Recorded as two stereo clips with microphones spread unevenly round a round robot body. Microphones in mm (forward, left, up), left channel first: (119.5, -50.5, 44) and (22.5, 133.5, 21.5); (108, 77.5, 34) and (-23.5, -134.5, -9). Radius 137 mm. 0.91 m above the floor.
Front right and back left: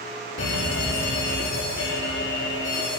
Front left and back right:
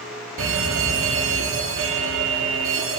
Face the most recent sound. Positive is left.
turn(degrees=-100)